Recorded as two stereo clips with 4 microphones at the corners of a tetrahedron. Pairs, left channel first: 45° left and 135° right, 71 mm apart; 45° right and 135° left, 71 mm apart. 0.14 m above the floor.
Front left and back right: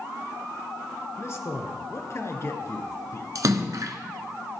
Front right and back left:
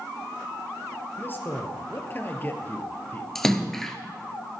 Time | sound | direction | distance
1.2 | a man speaking | 5° left | 2 m
3.4 | a splash | 130° right | 1.3 m